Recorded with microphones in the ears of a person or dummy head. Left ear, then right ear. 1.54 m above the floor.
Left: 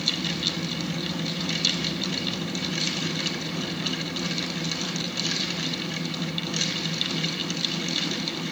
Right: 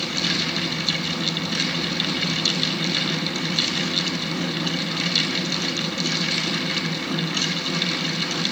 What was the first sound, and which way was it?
Only background noise.